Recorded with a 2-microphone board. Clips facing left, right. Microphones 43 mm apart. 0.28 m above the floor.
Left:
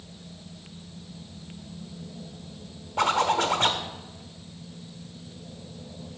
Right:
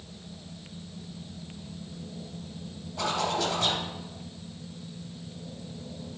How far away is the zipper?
About 0.9 m.